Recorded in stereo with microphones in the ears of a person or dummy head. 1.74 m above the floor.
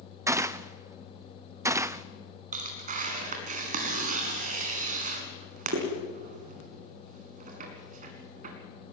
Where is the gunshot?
15° right (ahead or behind), 0.7 m.